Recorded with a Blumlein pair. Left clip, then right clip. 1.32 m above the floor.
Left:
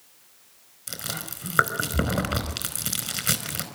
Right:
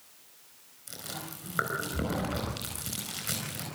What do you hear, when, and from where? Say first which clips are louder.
0.9 s chewing: left 7 dB; 65° left, 4.5 m